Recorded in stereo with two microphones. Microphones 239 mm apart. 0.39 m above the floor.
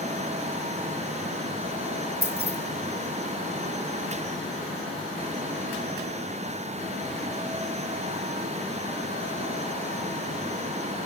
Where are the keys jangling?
45° right (ahead or behind), 1.2 m.